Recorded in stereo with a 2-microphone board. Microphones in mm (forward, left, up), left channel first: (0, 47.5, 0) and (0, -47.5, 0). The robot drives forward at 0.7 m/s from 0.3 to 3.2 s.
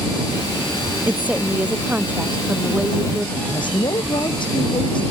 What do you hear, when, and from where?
1.1 s a woman speaking: 15° right (ahead or behind); by 3.3 s 10° right (ahead or behind)
3.4 s a woman speaking: 55° left (ahead or behind)